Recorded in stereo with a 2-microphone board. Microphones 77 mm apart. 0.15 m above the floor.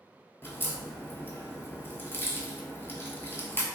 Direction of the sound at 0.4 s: 30° left (ahead or behind).